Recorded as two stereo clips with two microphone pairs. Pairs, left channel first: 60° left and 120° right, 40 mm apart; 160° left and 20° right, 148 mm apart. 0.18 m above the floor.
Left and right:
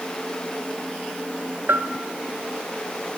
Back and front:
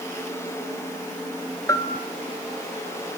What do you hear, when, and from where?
1.7 s a bell: 130° right, 1.4 m